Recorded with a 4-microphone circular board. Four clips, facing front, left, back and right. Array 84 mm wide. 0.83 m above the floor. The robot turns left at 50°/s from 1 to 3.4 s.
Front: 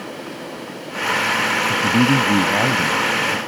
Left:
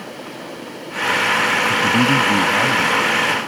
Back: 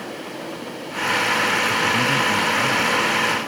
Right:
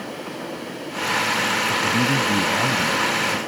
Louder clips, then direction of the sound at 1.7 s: Left 5 dB, front 4 dB; 50° left.